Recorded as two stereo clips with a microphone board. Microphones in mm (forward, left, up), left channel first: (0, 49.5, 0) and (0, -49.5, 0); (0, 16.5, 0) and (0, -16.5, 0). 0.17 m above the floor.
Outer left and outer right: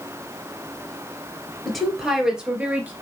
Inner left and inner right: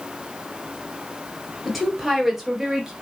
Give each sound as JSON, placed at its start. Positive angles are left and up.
{"t": 1.6, "sound": "a woman speaking", "side_deg": 5, "distance_m": 3.0}